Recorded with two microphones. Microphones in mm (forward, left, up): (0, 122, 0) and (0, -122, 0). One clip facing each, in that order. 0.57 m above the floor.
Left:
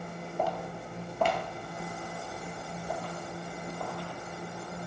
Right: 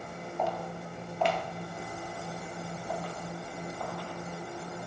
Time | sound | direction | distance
0.4 | footsteps | 35° left (ahead or behind) | 0.7 m